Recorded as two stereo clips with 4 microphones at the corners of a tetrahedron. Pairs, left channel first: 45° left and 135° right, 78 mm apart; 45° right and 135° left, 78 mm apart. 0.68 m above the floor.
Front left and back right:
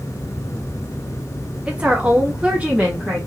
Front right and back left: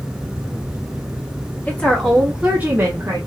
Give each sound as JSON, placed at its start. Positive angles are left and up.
{"t": 1.7, "sound": "a woman speaking", "azimuth_deg": -80, "distance_m": 1.1}